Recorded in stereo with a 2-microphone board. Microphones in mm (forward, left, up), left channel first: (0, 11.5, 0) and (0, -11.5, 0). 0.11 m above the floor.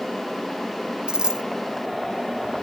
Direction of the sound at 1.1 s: 40° right (ahead or behind).